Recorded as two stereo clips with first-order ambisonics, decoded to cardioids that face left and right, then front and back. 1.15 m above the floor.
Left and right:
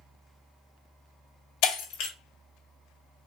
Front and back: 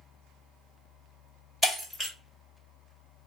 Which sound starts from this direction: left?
Breaking glass, at 1.6 s.